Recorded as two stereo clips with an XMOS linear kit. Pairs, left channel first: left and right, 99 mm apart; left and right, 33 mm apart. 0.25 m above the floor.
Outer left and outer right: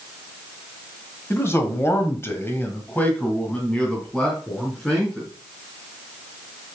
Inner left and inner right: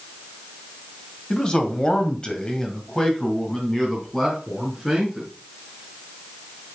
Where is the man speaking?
25° left (ahead or behind), 1.7 m; by 5.3 s 5° left (ahead or behind), 3.5 m.